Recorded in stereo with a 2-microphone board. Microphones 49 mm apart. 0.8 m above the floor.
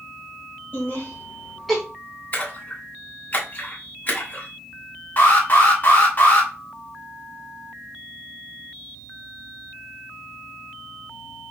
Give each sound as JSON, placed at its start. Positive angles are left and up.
{"t": 0.7, "sound": "laughter", "side_deg": 40, "distance_m": 1.7}
{"t": 2.3, "sound": "a splash", "side_deg": 40, "distance_m": 1.8}
{"t": 5.2, "sound": "an alarm", "side_deg": 35, "distance_m": 1.1}